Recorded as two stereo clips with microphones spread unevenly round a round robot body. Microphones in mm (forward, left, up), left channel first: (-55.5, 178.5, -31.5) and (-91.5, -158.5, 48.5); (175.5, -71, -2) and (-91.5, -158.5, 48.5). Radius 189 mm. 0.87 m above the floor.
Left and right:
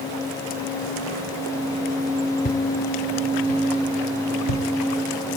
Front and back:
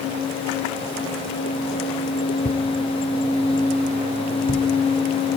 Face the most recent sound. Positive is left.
turn(degrees=90)